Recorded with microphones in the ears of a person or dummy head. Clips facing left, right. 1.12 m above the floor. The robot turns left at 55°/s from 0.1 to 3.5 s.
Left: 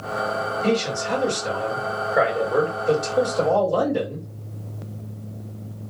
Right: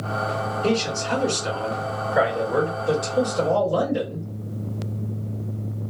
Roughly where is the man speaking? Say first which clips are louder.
Even; ahead.